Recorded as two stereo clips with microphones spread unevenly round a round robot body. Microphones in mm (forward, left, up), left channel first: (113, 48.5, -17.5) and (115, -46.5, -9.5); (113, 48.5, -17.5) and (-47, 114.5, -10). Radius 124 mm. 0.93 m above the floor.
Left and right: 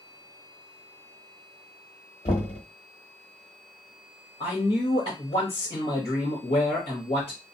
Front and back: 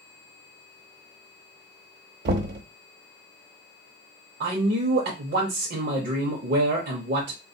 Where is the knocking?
135° left, 0.8 m.